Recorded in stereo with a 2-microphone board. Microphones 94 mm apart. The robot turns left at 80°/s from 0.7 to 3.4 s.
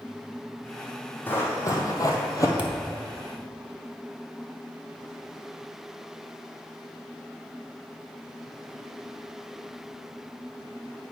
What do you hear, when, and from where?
1.3 s running footsteps: 20° left (ahead or behind), 2.0 m; by 2.5 s 35° left (ahead or behind), 1.3 m
2.6 s a thud: 15° right (ahead or behind), 0.8 m; by 2.9 s centre (ahead or behind), 0.8 m